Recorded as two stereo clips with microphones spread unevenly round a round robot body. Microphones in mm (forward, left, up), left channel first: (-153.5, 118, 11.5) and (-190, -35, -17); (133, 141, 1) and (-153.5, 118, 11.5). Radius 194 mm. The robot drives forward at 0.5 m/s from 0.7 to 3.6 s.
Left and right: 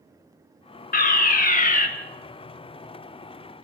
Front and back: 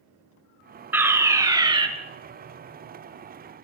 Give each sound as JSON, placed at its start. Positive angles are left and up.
{"t": 0.9, "sound": "a fire alarm", "azimuth_deg": 100, "distance_m": 3.0}